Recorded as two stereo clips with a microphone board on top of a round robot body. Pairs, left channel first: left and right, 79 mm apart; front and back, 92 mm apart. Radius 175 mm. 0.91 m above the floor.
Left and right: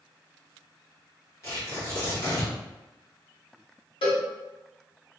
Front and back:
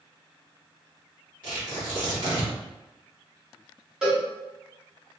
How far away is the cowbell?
About 1.3 m.